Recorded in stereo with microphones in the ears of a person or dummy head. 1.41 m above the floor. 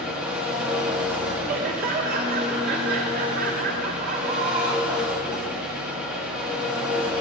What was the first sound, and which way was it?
An engine running, 5° right (ahead or behind).